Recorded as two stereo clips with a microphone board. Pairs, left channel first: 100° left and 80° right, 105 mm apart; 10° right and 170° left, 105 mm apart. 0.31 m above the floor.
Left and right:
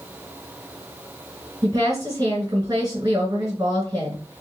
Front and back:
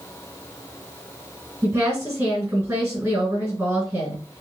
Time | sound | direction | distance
1.6 | a woman speaking | 125° right | 2 m